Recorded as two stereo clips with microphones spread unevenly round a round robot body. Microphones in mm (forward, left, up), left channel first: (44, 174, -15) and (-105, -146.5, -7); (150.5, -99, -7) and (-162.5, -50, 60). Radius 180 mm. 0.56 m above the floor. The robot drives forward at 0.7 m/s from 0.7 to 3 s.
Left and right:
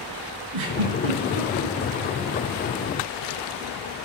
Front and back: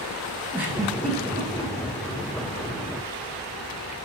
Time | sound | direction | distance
0.5 | a giggle | 105° right | 1.5 m